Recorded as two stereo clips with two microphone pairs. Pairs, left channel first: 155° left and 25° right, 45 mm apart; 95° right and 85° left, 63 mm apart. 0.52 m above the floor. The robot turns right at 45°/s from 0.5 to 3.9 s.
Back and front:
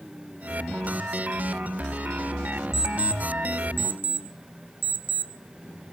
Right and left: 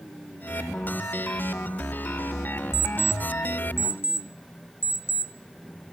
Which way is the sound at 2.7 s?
100° right.